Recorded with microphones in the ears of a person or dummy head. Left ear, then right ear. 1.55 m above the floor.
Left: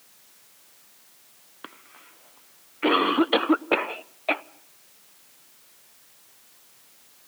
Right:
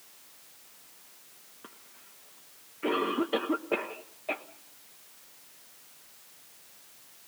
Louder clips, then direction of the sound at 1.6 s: Left 9 dB; 60° left (ahead or behind).